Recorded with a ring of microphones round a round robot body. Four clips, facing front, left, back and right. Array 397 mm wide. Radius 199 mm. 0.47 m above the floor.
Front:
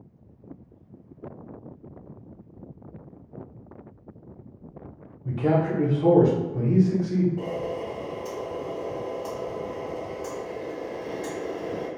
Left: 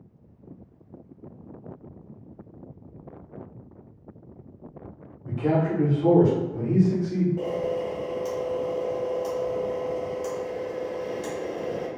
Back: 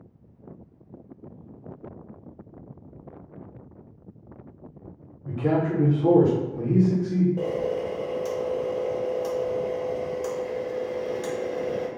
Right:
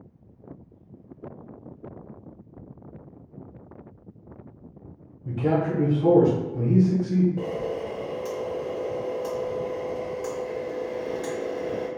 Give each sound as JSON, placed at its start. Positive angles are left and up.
{"t": 5.2, "sound": "a man speaking", "azimuth_deg": -10, "distance_m": 0.9}
{"t": 7.4, "sound": "a camera shutter", "azimuth_deg": -160, "distance_m": 1.3}